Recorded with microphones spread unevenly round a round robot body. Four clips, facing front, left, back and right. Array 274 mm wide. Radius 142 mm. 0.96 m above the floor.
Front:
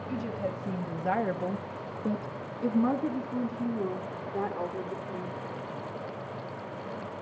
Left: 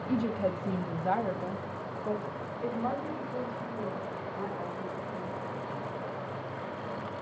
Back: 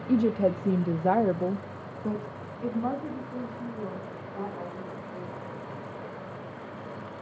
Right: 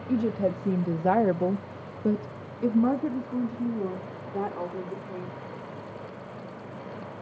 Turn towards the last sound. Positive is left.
turn(degrees=-45)